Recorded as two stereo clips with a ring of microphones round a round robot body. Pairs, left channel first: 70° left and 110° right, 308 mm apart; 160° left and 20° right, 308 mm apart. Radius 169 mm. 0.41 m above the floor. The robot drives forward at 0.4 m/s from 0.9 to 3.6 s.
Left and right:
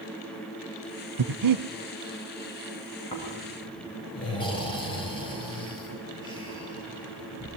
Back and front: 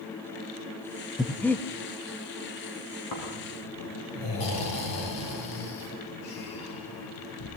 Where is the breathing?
115° right, 1.0 m; by 1.6 s 120° right, 1.1 m.